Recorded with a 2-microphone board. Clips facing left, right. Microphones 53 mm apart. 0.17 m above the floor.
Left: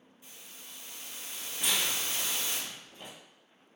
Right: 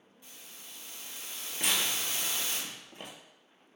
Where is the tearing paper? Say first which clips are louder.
Even; 50° right (ahead or behind), 0.7 m.